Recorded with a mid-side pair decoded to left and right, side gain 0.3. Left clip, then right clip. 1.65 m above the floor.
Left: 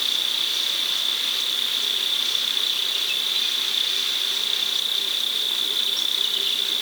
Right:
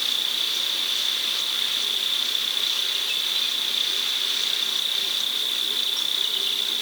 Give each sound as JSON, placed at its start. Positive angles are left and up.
{"t": 0.0, "sound": "an insect", "azimuth_deg": 15, "distance_m": 4.0}